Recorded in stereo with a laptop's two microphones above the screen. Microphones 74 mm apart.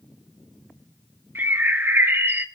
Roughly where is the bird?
Right.